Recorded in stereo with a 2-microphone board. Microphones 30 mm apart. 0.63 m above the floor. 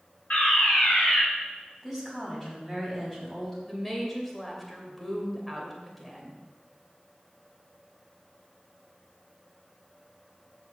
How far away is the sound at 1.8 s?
About 4 m.